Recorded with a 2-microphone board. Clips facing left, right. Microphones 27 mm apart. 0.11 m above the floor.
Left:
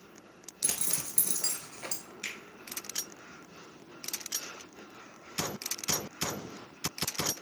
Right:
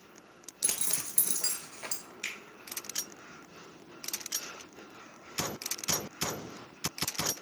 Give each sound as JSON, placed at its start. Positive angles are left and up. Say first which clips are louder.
{"t": 0.6, "sound": "a zipper", "louder": "even", "side_deg": -10, "distance_m": 0.7}
{"t": 2.2, "sound": "a finger snap", "louder": "right 1 dB", "side_deg": 0, "distance_m": 1.1}